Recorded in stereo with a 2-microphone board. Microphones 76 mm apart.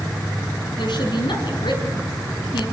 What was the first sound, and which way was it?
A woman speaking, 75° left (ahead or behind).